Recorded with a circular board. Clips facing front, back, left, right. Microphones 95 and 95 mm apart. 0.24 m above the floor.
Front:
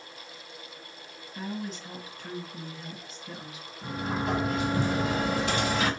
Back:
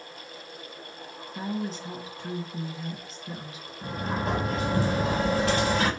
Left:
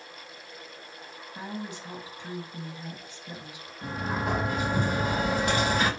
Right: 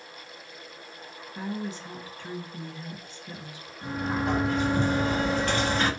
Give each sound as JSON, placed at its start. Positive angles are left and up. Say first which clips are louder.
{"t": 1.4, "sound": "a woman speaking", "louder": "back 4 dB, right 4 dB", "azimuth_deg": 150, "distance_m": 1.5}
{"t": 3.8, "sound": "a sliding door", "louder": "back 1 dB, right 2 dB", "azimuth_deg": 160, "distance_m": 4.0}